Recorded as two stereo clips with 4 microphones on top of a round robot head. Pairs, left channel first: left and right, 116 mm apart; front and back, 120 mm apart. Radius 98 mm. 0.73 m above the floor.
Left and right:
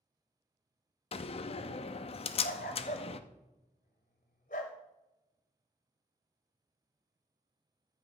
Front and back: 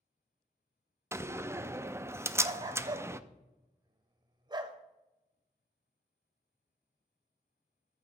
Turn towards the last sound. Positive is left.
turn(degrees=130)